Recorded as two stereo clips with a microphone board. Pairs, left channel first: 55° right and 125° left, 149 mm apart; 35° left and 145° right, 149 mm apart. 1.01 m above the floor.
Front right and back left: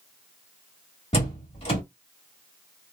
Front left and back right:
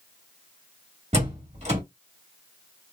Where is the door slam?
100° right, 1.6 m.